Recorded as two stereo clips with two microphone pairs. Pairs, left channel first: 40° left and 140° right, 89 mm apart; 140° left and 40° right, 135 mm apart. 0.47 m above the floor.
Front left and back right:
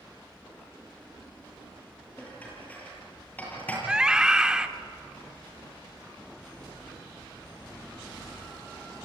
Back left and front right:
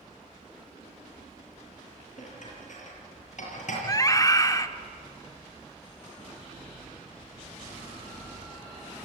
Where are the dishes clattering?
115° left, 8 m.